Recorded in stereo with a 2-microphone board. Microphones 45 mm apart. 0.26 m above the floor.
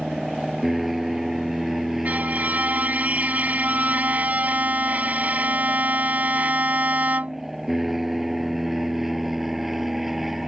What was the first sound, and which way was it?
An aircraft, 5° right (ahead or behind).